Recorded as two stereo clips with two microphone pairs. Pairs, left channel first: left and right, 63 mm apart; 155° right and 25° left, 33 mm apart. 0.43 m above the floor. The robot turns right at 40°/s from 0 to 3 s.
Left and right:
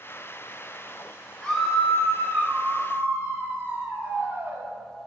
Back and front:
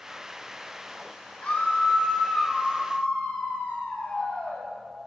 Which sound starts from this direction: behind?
A scream, at 1.4 s.